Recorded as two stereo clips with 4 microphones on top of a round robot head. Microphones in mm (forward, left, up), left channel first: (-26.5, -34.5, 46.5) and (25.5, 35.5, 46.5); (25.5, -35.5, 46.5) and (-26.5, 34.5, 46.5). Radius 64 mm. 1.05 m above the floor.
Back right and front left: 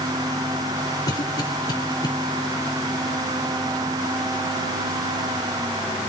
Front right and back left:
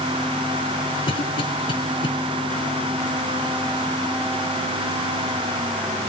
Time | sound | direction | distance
1.1 | a cough | 85° right | 3.5 m